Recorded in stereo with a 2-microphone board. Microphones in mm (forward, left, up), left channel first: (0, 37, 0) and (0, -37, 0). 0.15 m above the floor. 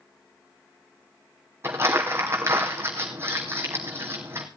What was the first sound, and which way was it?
Crumpling, 35° right (ahead or behind).